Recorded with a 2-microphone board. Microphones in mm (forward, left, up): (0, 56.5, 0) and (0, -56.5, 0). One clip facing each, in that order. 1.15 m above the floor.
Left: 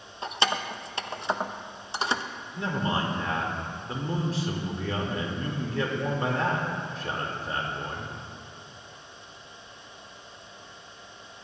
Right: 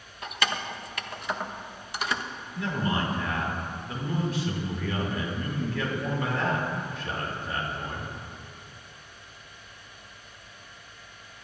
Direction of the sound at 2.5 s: 35° left (ahead or behind).